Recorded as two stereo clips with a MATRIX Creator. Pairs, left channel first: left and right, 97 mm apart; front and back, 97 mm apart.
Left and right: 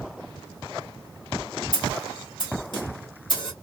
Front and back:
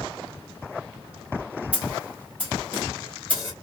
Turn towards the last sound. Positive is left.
turn(degrees=110)